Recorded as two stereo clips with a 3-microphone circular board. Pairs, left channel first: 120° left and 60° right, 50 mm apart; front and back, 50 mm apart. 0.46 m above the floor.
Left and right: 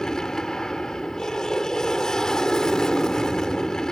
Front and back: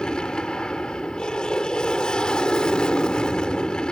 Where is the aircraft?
55° left.